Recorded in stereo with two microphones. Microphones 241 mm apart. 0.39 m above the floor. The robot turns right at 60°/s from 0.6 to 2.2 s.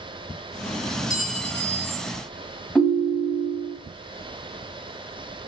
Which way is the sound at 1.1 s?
45° left.